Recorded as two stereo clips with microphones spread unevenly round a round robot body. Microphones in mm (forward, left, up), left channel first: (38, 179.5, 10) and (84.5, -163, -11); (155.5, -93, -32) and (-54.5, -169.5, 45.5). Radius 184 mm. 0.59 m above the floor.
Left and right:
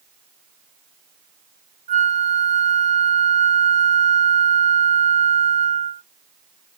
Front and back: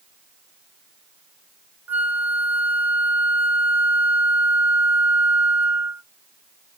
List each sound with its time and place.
1.9 s a flute: 45° right, 0.5 m